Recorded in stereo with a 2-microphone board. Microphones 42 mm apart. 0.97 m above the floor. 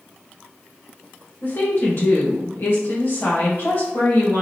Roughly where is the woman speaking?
Left.